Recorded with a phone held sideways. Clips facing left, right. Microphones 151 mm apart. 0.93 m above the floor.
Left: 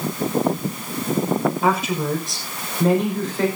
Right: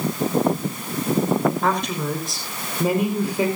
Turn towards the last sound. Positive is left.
turn(degrees=-15)  # may be behind; listen again after turning